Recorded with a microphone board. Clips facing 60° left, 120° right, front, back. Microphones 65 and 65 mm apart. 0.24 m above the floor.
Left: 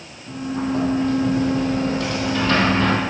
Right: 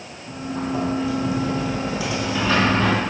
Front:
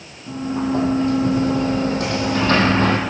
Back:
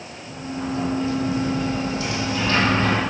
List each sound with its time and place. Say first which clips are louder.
0.3 s a sliding door: left 3 dB, front 7 dB; 40° right, 3 m